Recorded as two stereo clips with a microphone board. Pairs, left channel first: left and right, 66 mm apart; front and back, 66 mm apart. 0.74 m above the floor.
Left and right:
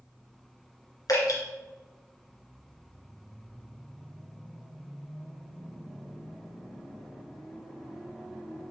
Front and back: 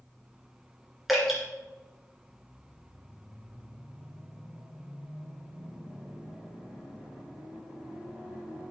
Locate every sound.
1.1 s dripping: 90° left, 2.5 m